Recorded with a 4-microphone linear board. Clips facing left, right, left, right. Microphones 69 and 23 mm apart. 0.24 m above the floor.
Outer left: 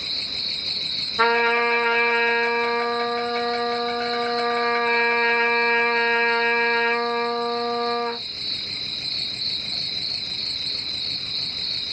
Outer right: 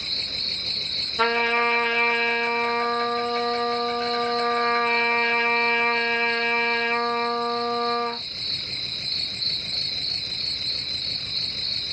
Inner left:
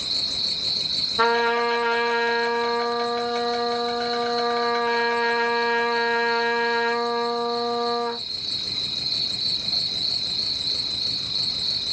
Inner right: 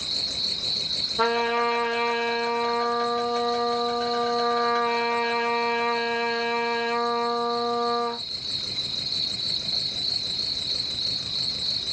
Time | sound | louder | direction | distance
0.0 | an insect | even, inner left 2 dB | 50° left (ahead or behind) | 1.3 m
1.2 | a trumpet | outer left 3 dB, inner left 3 dB | 30° left (ahead or behind) | 1.2 m